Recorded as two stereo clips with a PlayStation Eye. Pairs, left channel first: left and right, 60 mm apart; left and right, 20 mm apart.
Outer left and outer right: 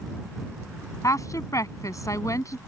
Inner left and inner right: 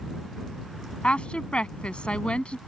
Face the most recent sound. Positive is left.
turn(degrees=65)  # may be behind; listen again after turning